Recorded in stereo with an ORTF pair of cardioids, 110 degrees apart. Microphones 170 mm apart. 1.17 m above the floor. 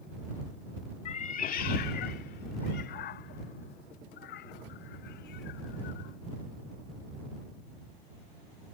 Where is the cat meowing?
45° left; by 6.2 s 80° left.